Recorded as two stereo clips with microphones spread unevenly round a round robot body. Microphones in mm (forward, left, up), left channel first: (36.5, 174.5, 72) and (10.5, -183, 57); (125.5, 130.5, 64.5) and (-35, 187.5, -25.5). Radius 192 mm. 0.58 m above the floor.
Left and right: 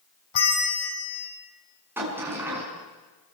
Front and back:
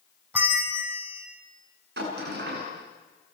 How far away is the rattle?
I don't hear a rattle.